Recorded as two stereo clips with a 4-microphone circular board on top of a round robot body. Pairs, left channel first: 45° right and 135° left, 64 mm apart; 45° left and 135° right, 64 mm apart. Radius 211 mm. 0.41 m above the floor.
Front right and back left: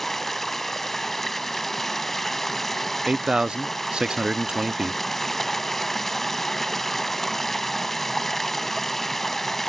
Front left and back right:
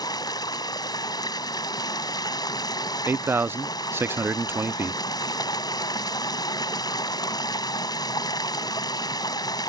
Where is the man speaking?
155° right.